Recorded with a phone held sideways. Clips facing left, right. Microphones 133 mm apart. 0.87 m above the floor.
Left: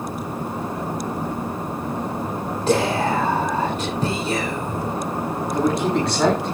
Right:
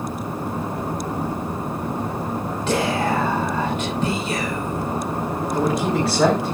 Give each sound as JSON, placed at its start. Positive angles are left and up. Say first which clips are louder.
{"t": 2.7, "sound": "whispering", "louder": "left 2 dB", "side_deg": 40, "distance_m": 3.5}
{"t": 5.5, "sound": "a man speaking", "louder": "left 1 dB", "side_deg": 0, "distance_m": 6.0}